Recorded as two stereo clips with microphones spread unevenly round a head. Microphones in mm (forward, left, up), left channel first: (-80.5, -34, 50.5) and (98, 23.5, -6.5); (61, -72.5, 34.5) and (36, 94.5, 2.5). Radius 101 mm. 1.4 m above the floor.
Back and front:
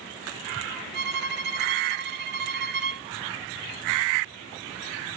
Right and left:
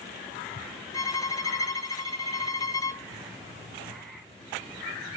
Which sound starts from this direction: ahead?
A violin, at 0.9 s.